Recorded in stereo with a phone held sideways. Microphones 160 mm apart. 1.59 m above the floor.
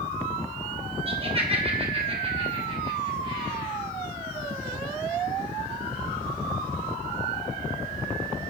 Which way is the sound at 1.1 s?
35° right (ahead or behind).